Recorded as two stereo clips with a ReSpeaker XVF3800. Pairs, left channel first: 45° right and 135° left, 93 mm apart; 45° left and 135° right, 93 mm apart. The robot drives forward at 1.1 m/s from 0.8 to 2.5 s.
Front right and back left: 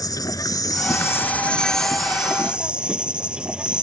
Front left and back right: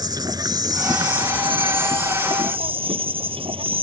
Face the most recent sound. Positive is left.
turn(degrees=-145)